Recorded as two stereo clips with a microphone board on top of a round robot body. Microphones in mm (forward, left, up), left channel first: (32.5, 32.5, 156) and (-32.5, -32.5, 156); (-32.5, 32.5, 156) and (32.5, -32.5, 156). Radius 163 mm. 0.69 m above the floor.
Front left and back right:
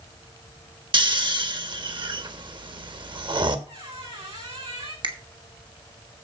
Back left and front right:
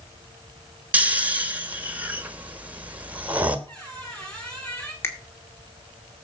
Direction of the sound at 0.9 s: 115° right.